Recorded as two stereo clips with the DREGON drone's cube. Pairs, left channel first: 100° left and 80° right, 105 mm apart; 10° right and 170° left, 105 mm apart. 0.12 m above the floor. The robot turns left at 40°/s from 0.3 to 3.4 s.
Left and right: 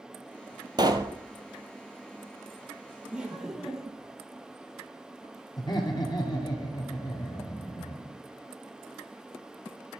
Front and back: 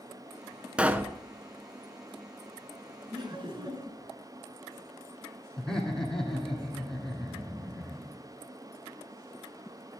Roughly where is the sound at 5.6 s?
Left.